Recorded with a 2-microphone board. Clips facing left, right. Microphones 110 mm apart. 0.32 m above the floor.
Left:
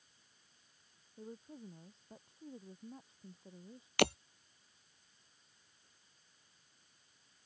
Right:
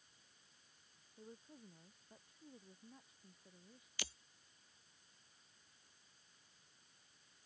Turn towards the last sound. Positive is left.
turn(degrees=75)  # may be behind; listen again after turning